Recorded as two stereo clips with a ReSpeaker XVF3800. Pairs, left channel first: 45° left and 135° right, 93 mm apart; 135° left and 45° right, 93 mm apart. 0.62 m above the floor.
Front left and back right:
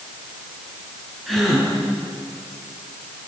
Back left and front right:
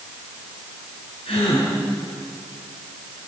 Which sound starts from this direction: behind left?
A gasp, at 1.3 s.